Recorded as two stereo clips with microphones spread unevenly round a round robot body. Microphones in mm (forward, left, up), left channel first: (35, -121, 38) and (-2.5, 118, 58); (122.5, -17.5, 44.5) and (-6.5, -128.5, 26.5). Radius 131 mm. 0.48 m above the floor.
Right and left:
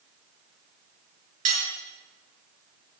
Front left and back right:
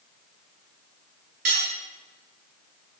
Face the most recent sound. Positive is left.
turn(degrees=160)